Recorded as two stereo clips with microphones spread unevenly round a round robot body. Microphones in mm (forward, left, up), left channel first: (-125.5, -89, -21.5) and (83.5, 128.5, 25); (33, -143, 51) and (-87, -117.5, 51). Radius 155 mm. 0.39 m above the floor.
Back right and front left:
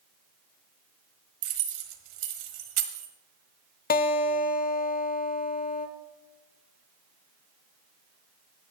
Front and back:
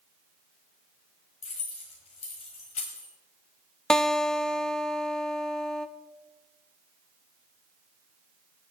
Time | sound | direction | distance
1.4 | keys jangling | 35° left | 1.4 m
3.9 | a guitar | 95° right | 0.7 m